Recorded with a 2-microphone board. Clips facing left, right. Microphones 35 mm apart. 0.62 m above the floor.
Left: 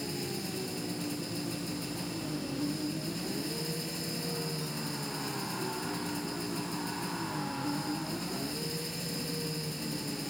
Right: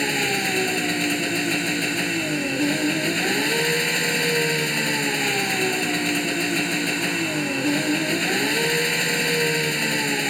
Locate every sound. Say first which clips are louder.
0.0 s an engine running: right 15 dB; 80° right